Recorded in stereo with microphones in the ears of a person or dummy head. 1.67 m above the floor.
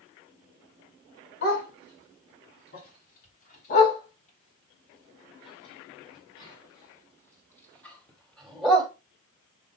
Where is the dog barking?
60° left (ahead or behind), 4.5 m; by 8.9 s centre (ahead or behind), 2.5 m.